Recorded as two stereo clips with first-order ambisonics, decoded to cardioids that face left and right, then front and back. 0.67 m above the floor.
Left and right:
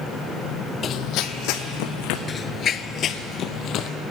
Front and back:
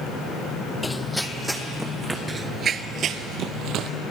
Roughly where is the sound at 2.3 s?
Behind left.